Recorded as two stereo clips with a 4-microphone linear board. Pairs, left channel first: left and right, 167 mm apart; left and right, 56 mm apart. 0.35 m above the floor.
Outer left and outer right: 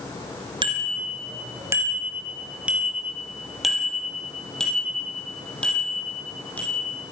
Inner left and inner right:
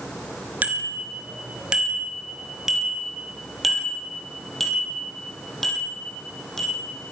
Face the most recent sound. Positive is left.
turn(degrees=10)  # may be behind; listen again after turning